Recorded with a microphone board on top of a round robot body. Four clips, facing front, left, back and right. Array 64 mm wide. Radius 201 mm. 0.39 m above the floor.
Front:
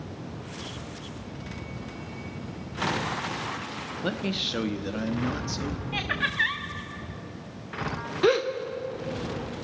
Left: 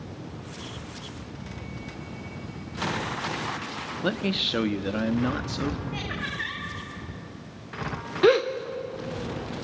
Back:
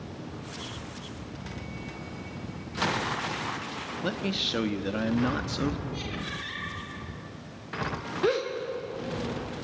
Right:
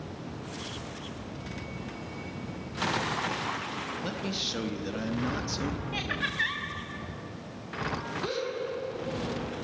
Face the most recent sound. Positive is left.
turn(degrees=75)